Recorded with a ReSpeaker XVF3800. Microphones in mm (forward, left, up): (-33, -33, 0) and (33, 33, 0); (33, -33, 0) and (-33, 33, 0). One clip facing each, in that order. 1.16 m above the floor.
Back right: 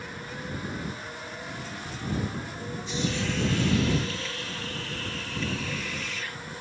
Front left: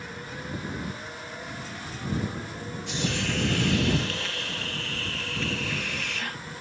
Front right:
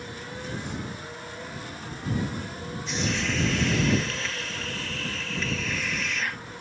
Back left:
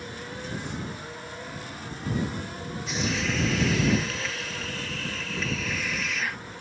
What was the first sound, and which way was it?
A hiss, 45° left.